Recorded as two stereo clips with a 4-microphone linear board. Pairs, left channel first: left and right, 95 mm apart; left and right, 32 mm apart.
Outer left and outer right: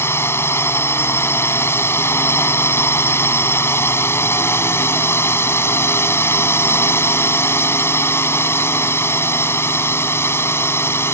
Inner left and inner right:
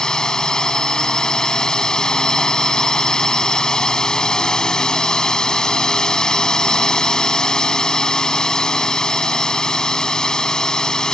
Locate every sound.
0.0 s a drone: 25° left (ahead or behind)